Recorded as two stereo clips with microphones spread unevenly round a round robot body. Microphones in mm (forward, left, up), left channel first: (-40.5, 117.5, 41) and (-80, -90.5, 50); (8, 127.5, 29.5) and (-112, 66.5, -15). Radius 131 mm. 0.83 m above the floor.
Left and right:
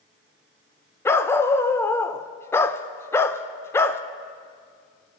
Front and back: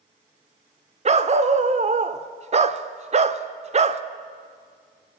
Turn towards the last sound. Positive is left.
turn(degrees=160)